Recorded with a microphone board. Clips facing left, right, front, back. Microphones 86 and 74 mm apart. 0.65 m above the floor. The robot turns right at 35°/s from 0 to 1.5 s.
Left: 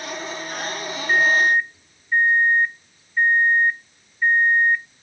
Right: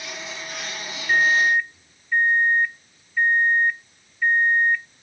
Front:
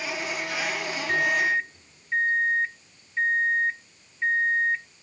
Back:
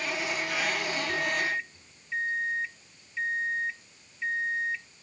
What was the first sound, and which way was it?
A microwave, 15° left.